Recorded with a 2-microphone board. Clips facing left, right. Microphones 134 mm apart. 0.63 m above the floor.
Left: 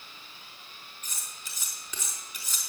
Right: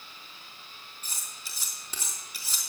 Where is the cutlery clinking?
30° right (ahead or behind), 4.5 m.